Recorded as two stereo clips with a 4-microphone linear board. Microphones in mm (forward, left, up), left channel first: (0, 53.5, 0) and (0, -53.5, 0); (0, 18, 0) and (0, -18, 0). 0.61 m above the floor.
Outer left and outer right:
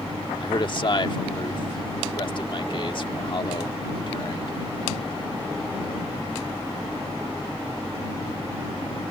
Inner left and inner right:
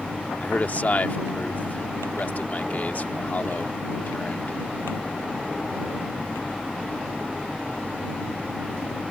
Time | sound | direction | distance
0.4 | a man speaking | 50° left (ahead or behind) | ?